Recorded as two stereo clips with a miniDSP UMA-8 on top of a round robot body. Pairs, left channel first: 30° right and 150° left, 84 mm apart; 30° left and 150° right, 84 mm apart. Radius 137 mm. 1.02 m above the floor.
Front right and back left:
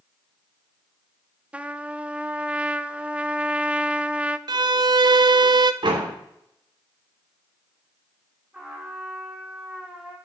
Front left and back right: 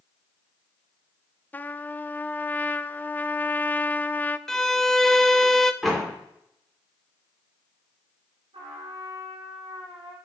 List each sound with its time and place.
1.5 s a trumpet: 85° left, 0.7 m
4.5 s a violin: 115° left, 0.5 m
5.8 s a door slam: 120° left, 3 m
8.5 s a trumpet: 130° right, 4 m